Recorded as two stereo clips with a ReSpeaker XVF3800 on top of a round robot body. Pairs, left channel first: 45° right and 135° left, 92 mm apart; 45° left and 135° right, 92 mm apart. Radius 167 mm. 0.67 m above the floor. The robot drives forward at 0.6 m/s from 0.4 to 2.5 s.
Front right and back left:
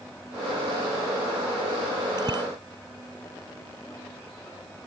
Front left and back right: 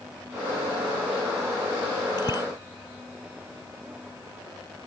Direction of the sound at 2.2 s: 90° left.